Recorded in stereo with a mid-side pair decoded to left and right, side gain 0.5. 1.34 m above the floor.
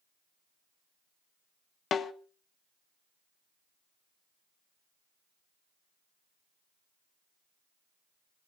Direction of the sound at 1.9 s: 50° left.